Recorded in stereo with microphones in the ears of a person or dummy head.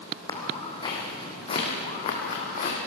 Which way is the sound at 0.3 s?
25° left (ahead or behind).